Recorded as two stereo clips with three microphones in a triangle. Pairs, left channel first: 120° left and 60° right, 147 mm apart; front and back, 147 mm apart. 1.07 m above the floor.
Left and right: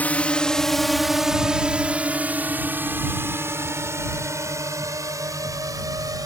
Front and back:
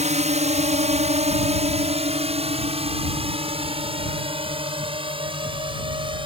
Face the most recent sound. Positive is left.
turn(degrees=-125)